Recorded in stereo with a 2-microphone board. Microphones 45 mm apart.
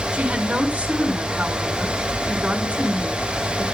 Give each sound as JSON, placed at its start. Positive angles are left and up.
{"t": 0.1, "sound": "a woman speaking", "side_deg": -30, "distance_m": 3.0}